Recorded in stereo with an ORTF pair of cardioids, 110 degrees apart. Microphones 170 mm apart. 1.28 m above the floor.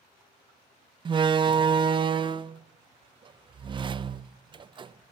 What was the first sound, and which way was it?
A door slam, 30° right.